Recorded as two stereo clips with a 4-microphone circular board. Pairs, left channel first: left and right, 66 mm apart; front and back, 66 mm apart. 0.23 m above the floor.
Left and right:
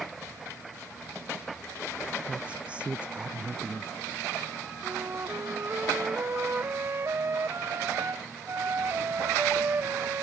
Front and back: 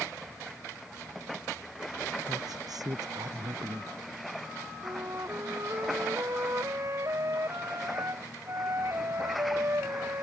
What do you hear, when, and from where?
2.3 s a woman speaking: 160° right
4.8 s a flute: 140° right